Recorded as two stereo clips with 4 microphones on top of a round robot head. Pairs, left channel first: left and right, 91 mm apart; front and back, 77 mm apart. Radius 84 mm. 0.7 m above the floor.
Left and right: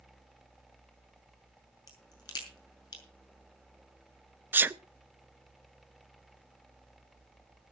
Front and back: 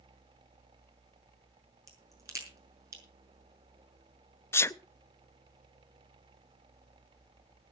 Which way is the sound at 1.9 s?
135° left.